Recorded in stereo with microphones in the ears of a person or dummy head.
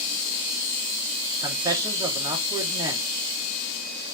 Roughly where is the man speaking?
Right.